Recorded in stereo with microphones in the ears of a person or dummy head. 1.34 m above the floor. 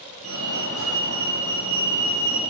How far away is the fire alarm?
About 4.5 m.